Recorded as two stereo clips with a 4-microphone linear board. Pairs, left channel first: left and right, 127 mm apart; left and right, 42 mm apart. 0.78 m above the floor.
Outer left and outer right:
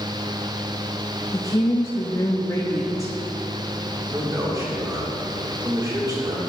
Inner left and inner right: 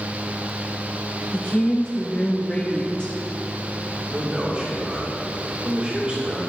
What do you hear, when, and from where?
1.3 s a woman speaking: 25° left (ahead or behind), 0.7 m
4.1 s a man speaking: 30° right (ahead or behind), 2.5 m